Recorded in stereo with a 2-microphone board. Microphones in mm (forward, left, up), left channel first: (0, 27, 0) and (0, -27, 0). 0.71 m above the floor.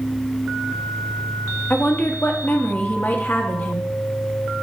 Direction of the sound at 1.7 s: 35° left (ahead or behind).